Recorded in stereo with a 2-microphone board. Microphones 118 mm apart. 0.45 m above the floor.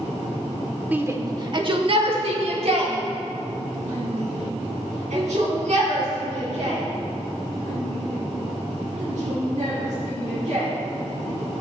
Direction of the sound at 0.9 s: 15° right (ahead or behind).